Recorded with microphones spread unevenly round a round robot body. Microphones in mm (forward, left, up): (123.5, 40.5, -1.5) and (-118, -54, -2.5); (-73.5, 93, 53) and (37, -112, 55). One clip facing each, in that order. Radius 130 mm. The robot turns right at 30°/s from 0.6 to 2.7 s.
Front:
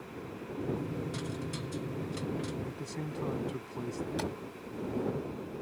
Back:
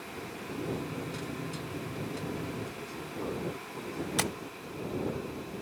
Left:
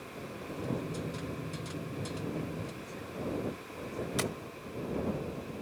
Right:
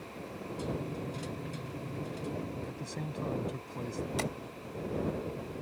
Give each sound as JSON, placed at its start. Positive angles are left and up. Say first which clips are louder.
{"t": 2.7, "sound": "a man speaking", "louder": "front 2 dB, right 2 dB", "azimuth_deg": -25}
{"t": 4.2, "sound": "tapping", "louder": "back 2 dB, left 3 dB", "azimuth_deg": -170}